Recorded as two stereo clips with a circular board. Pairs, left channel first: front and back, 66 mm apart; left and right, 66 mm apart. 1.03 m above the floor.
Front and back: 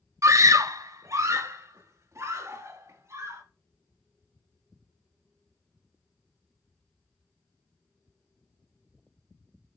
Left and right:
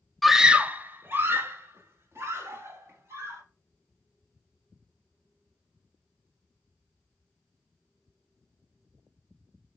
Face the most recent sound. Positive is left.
turn(degrees=-135)